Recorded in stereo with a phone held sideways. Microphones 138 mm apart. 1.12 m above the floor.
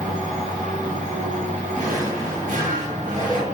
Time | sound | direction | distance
0.0 | a machine running | 65° right (ahead or behind) | 1.1 m
1.7 | a drawer | 85° right | 1.7 m